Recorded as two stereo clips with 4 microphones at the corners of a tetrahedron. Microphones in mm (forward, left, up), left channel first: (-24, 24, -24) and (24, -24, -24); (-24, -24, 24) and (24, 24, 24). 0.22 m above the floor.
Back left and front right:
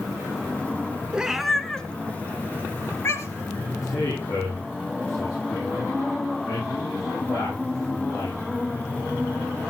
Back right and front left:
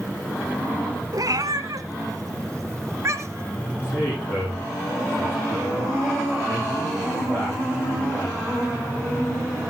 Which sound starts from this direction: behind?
A man speaking, at 3.8 s.